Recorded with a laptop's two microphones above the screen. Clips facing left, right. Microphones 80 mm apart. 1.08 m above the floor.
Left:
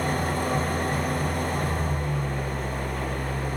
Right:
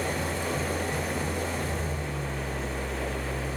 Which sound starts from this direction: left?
An engine running, at 0.0 s.